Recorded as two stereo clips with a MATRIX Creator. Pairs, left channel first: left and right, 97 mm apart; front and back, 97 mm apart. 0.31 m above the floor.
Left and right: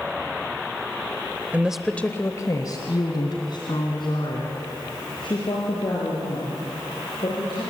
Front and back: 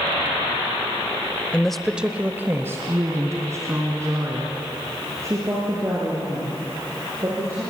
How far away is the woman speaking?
About 1.1 m.